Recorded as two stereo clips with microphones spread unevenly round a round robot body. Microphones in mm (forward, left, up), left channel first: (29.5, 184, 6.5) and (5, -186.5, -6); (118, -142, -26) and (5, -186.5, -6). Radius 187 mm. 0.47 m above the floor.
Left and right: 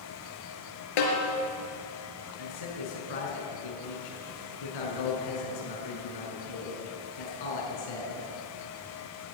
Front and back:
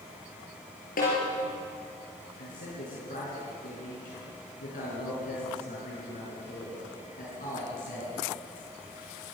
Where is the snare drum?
60° left, 4 m.